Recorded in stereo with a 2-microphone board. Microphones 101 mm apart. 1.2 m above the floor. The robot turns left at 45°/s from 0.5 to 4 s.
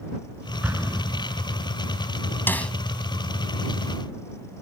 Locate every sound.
0.6 s an explosion: 15° right (ahead or behind); by 1.6 s 55° right (ahead or behind)
2.5 s a snare drum: 20° left (ahead or behind); by 2.7 s 10° left (ahead or behind)